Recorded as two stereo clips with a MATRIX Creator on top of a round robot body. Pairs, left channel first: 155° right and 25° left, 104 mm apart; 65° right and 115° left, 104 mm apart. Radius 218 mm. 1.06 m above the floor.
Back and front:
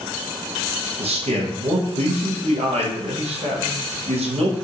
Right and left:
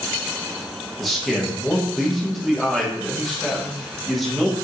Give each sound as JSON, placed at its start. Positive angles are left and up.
{"t": 1.0, "sound": "a man speaking", "azimuth_deg": 25, "distance_m": 1.3}